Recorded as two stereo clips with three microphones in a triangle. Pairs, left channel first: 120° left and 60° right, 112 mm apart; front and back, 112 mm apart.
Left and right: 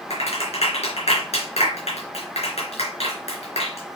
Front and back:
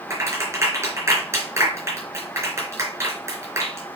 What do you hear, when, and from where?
0.1 s a clap: 120° left, 4 m